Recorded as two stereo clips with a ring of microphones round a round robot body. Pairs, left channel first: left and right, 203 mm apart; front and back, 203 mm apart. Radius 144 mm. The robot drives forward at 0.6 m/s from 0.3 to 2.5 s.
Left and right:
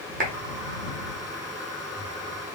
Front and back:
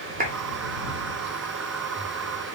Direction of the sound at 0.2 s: 130° right.